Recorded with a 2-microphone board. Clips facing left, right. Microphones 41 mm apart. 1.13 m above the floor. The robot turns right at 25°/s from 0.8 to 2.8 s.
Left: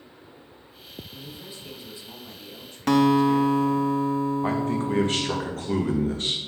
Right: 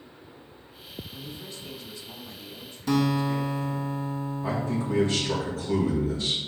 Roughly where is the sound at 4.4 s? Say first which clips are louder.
Left 4 dB; left.